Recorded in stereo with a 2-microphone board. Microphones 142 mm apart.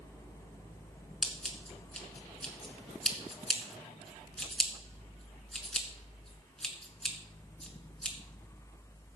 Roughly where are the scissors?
Centre.